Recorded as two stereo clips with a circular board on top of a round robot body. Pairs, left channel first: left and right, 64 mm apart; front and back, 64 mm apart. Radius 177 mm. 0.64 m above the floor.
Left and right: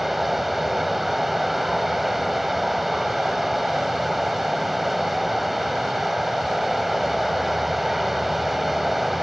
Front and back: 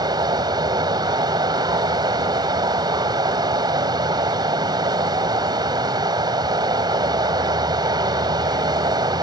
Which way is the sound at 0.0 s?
Straight behind.